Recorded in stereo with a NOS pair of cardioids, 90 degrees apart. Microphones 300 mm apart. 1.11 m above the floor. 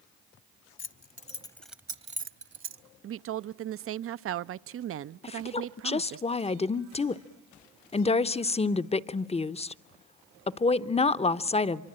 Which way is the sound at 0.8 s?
45° left.